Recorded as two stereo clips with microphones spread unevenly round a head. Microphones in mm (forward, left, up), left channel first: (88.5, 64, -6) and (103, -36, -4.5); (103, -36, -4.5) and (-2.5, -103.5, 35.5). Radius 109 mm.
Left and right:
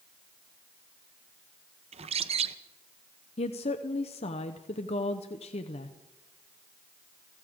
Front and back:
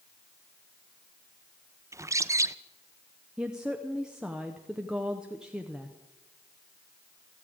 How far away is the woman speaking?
About 0.8 m.